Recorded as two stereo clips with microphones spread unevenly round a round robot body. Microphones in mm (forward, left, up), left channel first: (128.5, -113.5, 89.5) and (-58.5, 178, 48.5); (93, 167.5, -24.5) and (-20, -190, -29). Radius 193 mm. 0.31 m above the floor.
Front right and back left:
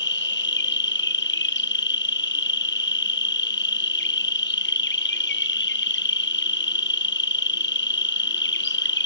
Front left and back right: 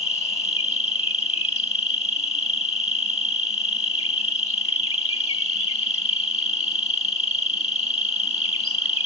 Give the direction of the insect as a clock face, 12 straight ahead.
12 o'clock.